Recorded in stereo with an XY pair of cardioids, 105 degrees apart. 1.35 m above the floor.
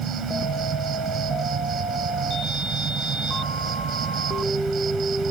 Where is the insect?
55° right.